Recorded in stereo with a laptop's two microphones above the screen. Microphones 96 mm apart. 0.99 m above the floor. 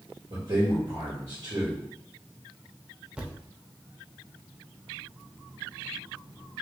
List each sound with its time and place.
0.3 s a man speaking: 60° right (ahead or behind), 1.5 m
3.2 s a thud: 10° right (ahead or behind), 0.6 m